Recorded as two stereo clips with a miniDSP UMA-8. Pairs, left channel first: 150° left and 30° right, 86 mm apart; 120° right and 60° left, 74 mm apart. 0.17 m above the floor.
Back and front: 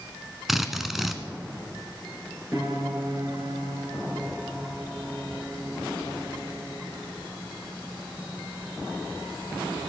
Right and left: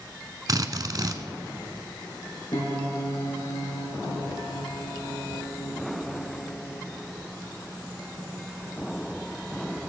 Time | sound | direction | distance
0.5 | a drill | 55° left | 0.7 m
2.5 | a piano | 85° right | 2.5 m